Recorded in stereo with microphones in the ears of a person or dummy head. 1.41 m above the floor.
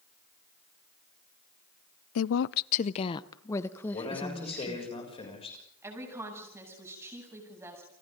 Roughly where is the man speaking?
Left.